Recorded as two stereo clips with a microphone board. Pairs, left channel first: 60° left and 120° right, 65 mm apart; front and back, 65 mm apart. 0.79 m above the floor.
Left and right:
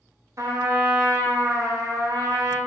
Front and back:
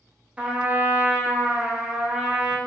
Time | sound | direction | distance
0.4 | a trumpet | 115° right | 0.9 m